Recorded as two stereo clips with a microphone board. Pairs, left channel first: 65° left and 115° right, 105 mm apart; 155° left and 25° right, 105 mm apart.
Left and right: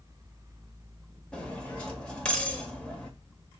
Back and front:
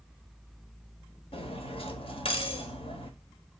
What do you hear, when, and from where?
1.3 s cutlery clinking: 150° left, 1.4 m